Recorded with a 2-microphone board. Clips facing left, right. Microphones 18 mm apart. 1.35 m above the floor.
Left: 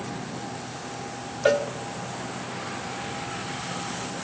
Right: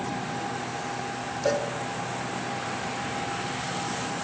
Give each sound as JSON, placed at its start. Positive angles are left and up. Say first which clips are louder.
{"t": 1.4, "sound": "a cowbell", "louder": "left 5 dB", "side_deg": 55, "distance_m": 0.6}